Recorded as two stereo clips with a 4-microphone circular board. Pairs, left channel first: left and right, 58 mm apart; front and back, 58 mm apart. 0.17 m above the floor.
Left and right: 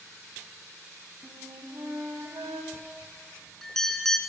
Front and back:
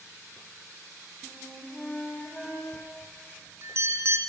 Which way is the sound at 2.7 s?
170° left.